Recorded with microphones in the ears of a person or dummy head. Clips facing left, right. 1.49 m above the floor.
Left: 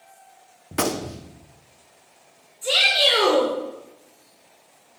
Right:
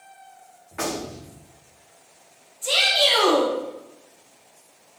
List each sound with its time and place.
0.7 s a gunshot: 50° left (ahead or behind), 0.7 m
2.6 s a shout: 20° left (ahead or behind), 3.5 m